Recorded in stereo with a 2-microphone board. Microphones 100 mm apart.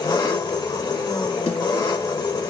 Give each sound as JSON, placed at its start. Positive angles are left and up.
{"t": 0.0, "sound": "an engine running", "side_deg": 45, "distance_m": 1.9}
{"t": 1.5, "sound": "a snare drum", "side_deg": 75, "distance_m": 3.0}